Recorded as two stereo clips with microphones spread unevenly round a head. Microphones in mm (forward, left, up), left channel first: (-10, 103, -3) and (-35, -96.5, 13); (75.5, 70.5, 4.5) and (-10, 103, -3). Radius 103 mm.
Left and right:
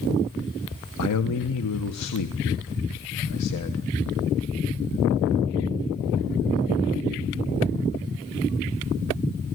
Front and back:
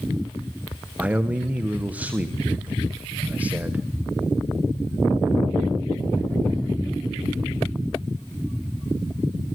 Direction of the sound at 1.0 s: 85° left.